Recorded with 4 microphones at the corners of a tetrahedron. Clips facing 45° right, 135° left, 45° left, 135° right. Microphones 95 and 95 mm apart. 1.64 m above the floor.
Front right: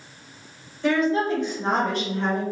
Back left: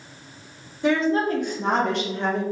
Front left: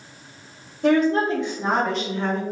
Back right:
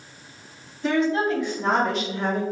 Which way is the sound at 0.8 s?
65° left.